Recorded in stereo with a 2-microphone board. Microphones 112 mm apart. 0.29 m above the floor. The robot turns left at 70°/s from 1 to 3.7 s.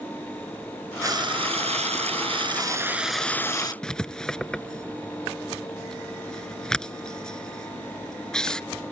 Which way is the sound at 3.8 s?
5° left (ahead or behind).